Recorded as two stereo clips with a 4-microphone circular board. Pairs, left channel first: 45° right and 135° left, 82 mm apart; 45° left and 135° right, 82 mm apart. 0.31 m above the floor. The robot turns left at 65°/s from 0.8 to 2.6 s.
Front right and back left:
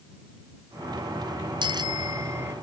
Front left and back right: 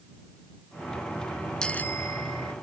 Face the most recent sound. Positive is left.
turn(degrees=60)